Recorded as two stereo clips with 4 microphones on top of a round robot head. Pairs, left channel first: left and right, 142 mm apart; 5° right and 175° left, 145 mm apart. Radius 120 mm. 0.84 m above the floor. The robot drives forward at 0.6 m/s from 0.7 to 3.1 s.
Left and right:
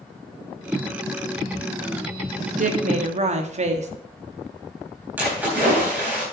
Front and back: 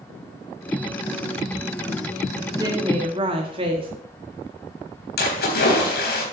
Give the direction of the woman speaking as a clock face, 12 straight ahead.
4 o'clock.